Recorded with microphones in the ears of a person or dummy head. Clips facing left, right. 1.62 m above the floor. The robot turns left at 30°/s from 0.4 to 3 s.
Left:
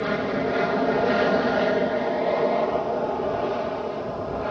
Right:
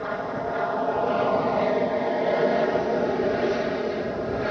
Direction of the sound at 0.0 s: 50° left.